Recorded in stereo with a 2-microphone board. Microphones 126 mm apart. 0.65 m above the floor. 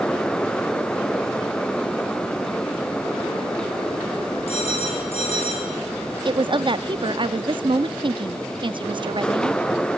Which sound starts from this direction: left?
A phone ringing, at 4.5 s.